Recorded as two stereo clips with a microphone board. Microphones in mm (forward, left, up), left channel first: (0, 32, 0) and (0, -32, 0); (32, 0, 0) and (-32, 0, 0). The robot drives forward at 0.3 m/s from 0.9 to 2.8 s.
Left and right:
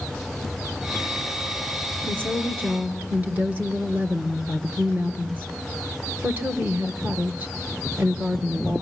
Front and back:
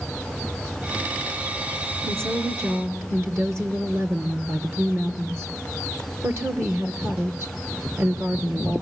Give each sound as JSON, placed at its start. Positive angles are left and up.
{"t": 2.0, "sound": "a woman speaking", "azimuth_deg": -140, "distance_m": 1.8}